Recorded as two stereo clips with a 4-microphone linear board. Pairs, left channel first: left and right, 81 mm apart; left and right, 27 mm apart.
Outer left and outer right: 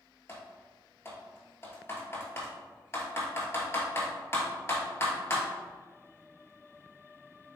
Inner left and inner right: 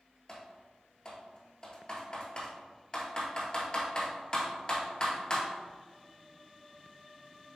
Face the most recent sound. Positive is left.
turn(degrees=30)  # may be behind; listen again after turning